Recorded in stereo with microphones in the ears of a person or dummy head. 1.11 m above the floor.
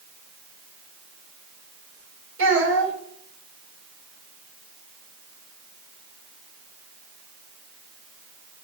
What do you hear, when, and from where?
2.4 s a child speaking: 90° right, 4 m